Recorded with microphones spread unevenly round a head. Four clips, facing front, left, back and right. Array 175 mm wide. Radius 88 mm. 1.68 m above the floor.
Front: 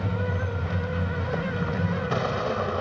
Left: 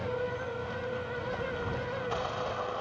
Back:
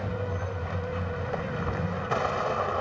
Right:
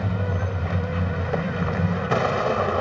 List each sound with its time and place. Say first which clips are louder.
0.0 s a vehicle: right 5 dB, front 3 dB; 75° right